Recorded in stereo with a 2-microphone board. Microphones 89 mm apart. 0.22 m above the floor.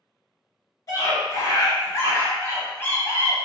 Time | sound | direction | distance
0.9 | a scream | 40° left (ahead or behind) | 1.9 m